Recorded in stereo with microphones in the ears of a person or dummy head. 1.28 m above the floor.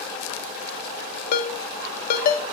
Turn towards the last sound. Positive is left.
turn(degrees=50)  # may be behind; listen again after turning